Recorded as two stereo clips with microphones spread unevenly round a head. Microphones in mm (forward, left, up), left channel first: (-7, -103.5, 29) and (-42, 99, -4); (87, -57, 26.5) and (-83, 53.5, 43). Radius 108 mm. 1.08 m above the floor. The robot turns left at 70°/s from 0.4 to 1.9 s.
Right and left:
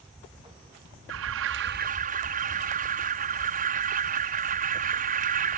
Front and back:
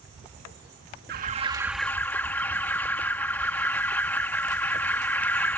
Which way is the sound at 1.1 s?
105° left.